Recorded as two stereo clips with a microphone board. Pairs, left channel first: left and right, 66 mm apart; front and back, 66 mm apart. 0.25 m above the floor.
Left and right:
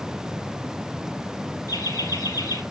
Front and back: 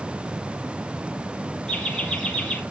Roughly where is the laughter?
Left.